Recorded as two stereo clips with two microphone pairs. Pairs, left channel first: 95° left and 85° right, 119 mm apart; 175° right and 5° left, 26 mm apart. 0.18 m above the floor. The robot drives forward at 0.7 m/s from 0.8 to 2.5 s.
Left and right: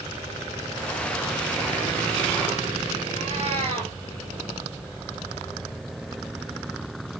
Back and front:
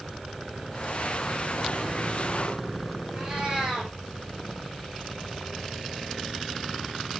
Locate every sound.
3.1 s a cat meowing: 55° right, 3.5 m